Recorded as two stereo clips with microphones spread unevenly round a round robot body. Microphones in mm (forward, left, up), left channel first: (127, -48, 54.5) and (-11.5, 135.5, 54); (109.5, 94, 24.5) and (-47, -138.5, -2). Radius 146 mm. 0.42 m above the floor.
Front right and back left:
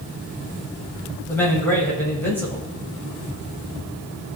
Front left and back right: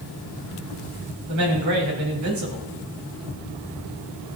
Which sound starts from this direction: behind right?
A man speaking, at 1.3 s.